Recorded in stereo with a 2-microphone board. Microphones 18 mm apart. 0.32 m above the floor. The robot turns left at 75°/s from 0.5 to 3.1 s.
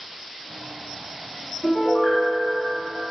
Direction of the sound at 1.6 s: 105° left.